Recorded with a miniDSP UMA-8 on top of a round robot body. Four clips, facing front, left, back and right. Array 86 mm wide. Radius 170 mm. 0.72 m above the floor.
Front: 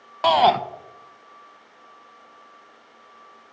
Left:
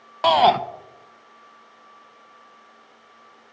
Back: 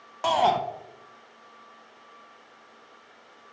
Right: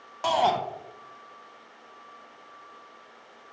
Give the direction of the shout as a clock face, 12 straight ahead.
10 o'clock.